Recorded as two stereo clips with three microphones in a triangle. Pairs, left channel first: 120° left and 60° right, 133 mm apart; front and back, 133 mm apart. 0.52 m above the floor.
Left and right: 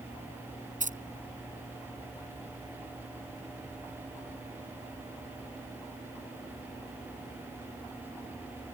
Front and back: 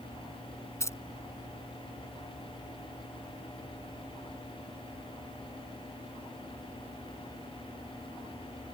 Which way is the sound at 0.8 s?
70° right.